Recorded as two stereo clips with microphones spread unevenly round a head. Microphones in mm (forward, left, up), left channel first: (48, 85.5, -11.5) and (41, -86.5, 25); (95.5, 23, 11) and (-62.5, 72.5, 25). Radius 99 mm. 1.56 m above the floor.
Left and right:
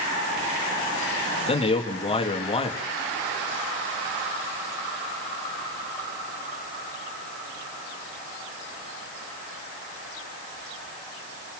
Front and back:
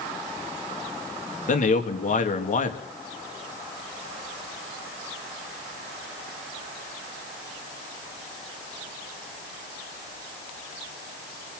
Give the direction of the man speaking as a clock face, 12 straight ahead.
11 o'clock.